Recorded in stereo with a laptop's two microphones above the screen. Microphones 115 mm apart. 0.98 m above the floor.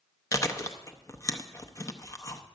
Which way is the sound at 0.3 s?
30° left (ahead or behind).